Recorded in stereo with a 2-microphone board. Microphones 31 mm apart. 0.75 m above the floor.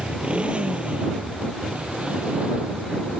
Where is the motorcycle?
35° right (ahead or behind); by 3.2 s 40° right (ahead or behind).